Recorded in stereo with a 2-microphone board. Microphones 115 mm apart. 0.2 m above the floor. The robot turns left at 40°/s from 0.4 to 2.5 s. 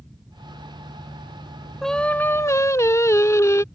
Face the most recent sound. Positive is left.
turn(degrees=25)  # may be behind; listen again after turning